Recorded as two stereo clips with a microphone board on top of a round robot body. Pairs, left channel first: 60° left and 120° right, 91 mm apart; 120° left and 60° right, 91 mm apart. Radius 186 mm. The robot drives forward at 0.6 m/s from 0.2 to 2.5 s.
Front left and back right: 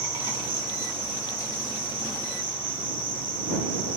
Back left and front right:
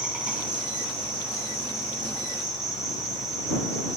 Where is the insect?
140° right, 4.5 m; by 4.0 s 150° right, 5.5 m.